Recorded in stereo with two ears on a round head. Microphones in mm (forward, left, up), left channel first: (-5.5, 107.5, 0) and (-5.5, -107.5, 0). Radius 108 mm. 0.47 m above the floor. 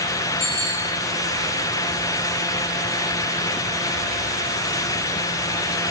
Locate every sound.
0.4 s a bicycle bell: 25° left (ahead or behind), 9 m